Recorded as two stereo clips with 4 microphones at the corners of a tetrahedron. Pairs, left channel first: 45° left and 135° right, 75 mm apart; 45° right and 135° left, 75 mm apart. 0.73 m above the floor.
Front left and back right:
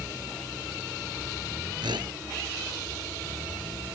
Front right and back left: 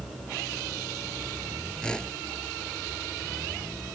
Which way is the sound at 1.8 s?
125° right.